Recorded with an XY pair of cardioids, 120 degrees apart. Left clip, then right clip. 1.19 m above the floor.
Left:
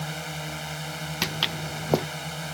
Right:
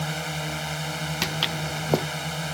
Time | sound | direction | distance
0.0 | a drone | 20° right | ?
1.2 | footsteps | straight ahead | ?